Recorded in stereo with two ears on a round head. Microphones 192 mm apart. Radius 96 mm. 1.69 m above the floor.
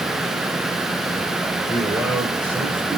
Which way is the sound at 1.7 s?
5° right (ahead or behind).